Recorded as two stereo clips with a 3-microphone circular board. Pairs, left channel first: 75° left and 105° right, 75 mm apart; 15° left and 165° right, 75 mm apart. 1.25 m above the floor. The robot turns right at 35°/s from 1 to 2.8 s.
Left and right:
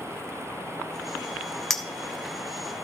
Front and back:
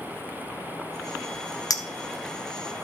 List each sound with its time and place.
1.7 s a clink: 10° right, 1.0 m; by 2.7 s 25° left, 1.0 m